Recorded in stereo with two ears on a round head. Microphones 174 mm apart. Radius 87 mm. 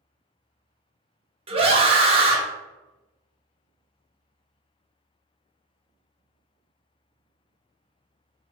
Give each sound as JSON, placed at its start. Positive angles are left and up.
{"t": 1.5, "sound": "a scream", "side_deg": -30, "distance_m": 0.9}